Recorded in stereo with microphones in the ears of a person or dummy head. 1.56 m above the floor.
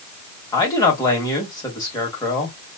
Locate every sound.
0.5 s a man speaking: 25° left (ahead or behind), 2.5 m